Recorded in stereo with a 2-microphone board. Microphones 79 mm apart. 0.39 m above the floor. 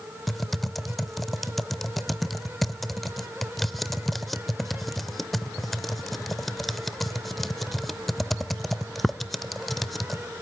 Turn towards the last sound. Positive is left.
turn(degrees=0)  # may be behind; listen again after turning